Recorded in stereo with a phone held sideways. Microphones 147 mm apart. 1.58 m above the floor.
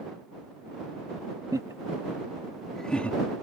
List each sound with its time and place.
1.5 s laughter: 30° right (ahead or behind); by 3.2 s 10° left (ahead or behind)